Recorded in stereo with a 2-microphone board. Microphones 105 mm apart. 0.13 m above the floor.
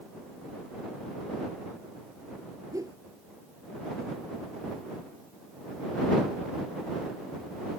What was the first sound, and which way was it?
A whoosh, 35° right (ahead or behind).